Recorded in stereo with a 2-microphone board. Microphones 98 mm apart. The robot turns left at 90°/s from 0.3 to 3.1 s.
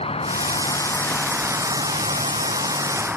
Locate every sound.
0.0 s an insect: 85° left; by 3.2 s 165° right